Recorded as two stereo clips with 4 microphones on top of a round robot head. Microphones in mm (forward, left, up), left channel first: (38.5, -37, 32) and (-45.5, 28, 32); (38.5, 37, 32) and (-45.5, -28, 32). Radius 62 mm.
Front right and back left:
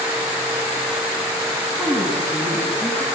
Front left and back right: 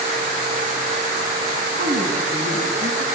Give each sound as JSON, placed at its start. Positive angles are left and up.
{"t": 1.7, "sound": "a woman speaking", "azimuth_deg": -110, "distance_m": 8.5}